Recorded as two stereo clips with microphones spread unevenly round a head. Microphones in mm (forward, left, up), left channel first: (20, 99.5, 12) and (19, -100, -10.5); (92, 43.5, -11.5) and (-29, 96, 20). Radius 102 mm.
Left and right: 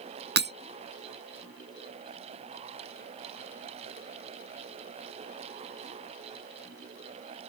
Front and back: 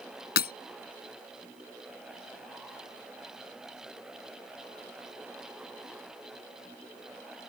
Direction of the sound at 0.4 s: 55° right.